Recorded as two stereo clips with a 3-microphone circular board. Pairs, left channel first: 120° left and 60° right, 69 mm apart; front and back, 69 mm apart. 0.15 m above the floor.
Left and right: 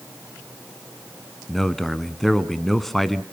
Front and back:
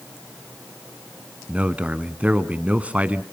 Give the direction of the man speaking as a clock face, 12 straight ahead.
5 o'clock.